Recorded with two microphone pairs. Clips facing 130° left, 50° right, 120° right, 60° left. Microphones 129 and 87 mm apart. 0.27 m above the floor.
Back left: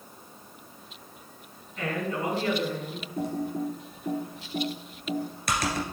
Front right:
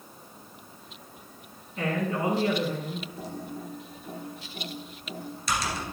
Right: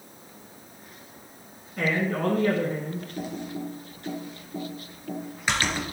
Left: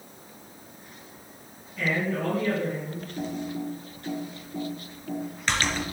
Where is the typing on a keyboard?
160° left, 2.5 m.